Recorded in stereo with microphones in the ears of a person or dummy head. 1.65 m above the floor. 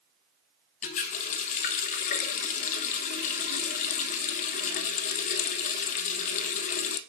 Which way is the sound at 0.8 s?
45° left (ahead or behind).